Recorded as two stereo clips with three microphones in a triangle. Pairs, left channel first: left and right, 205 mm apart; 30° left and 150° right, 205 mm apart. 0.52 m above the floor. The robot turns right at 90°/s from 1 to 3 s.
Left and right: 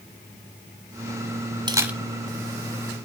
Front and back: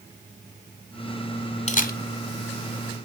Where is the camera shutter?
25° right, 0.6 m; by 2.0 s straight ahead, 0.6 m.